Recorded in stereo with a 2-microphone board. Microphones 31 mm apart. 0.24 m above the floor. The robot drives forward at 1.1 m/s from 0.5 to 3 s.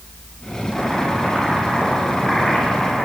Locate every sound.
0.7 s boiling: 20° left (ahead or behind), 9 m; by 3.1 s 15° left (ahead or behind), 11.5 m